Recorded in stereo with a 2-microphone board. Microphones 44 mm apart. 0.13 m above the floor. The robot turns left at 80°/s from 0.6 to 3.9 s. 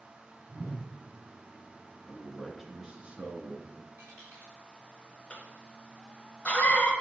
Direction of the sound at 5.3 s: 25° left (ahead or behind).